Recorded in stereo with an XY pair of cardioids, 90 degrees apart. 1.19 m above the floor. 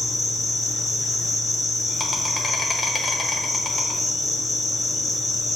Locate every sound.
0.0 s an insect: 35° left, 0.9 m